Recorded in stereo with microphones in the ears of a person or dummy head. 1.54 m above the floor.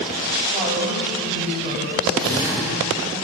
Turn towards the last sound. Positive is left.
turn(degrees=-25)  # may be behind; listen again after turning